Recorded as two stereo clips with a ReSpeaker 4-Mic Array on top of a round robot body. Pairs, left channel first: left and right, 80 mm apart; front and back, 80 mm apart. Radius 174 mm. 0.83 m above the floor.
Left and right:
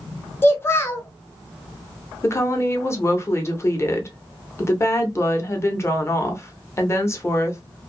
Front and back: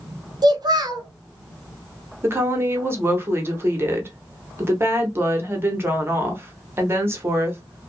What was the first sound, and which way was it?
A child speaking, 150° left.